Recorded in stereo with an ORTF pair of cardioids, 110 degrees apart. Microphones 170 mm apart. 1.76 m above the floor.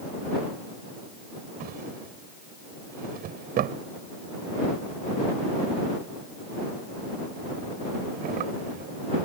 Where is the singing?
No singing in this recording.